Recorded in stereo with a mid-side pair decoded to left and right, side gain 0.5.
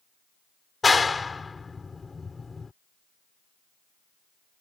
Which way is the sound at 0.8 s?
25° left.